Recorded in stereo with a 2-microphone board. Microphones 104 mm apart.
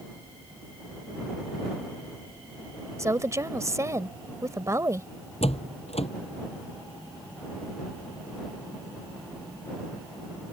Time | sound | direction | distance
3.0 | a woman speaking | 30° right (ahead or behind) | ?
5.4 | a door slam | 85° left | ?